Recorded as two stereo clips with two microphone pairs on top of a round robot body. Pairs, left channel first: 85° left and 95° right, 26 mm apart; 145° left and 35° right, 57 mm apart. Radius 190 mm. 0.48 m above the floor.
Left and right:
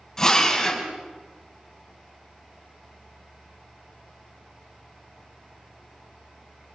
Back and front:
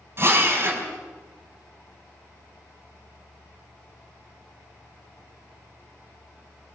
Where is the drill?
15° left, 5 m.